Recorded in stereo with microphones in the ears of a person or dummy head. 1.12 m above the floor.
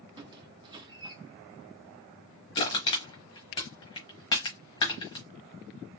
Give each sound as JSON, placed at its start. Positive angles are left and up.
{"t": 0.2, "sound": "a squeak", "side_deg": -25, "distance_m": 1.0}
{"t": 2.5, "sound": "crushing", "side_deg": 20, "distance_m": 1.1}